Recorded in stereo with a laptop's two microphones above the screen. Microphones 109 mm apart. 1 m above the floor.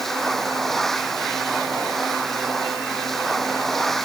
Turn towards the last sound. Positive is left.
turn(degrees=0)  # may be behind; listen again after turning